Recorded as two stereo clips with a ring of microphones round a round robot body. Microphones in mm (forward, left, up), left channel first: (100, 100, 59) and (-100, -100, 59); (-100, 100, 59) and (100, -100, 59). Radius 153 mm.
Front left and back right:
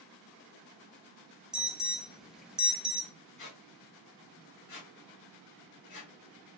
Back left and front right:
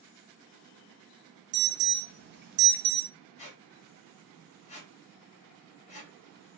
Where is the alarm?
50° right, 0.5 m.